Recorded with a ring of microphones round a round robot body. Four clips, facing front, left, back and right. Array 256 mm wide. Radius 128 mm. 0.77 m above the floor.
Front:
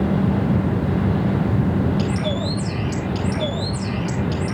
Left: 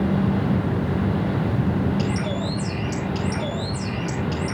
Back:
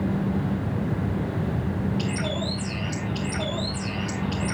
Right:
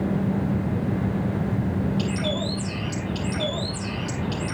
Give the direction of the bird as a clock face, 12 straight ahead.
11 o'clock.